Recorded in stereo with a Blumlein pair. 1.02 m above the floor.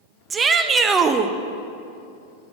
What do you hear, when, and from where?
0.3 s a shout: 20° right, 0.6 m